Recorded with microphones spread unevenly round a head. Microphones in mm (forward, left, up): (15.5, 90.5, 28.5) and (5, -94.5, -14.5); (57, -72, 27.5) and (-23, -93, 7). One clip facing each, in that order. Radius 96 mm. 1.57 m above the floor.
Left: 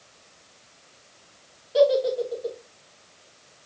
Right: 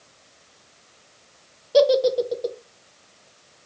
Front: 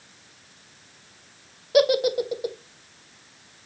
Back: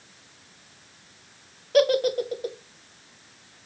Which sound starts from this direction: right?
A giggle, at 1.7 s.